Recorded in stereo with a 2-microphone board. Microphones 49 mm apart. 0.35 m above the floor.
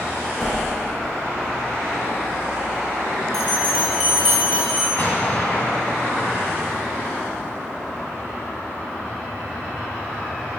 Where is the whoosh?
5° left (ahead or behind), 4 m.